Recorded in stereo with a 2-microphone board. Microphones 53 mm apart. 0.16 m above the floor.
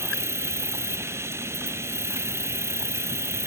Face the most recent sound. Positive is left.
turn(degrees=-60)  # may be behind; listen again after turning